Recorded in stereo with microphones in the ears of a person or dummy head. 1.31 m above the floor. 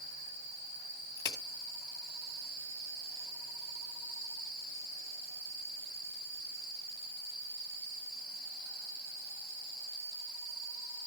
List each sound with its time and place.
1.2 s a crack: 20° left (ahead or behind), 2 m